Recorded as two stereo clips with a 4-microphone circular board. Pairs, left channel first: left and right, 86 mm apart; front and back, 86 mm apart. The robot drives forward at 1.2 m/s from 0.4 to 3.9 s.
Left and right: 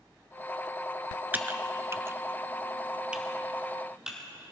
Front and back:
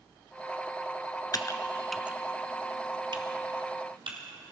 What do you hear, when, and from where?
1.3 s typing on a keyboard: 25° right, 1.0 m; by 4.2 s 170° right, 2.5 m